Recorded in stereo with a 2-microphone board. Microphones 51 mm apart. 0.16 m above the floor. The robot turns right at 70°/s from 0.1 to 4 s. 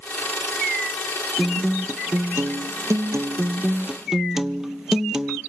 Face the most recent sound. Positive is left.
turn(degrees=-10)